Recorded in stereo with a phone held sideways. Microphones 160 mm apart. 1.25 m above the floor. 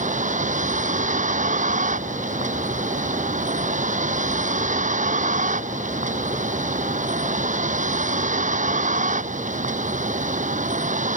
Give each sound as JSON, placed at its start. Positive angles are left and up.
{"t": 0.0, "sound": "a vehicle", "side_deg": -50}